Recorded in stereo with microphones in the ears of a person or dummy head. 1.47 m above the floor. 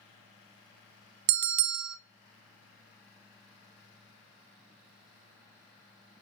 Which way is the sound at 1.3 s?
55° right (ahead or behind).